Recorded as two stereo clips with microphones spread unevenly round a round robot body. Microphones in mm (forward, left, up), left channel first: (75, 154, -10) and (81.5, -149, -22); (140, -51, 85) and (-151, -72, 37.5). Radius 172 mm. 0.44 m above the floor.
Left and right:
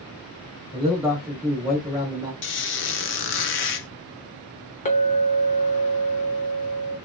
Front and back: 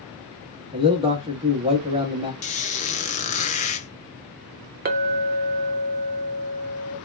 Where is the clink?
155° left, 0.5 m.